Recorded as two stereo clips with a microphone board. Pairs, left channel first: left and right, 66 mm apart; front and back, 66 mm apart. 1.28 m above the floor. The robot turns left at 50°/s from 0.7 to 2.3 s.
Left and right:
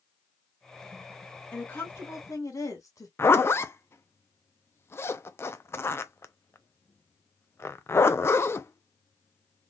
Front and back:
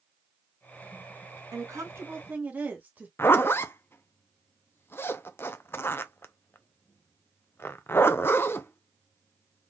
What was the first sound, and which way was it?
A woman speaking, 155° left.